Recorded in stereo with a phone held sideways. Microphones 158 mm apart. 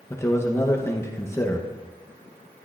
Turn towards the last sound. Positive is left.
turn(degrees=15)  # may be behind; listen again after turning